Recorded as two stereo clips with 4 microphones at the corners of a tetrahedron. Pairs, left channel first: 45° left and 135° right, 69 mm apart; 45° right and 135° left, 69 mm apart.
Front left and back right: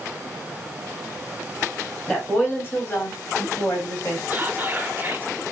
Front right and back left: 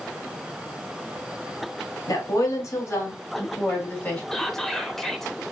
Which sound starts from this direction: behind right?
Whispering, at 4.3 s.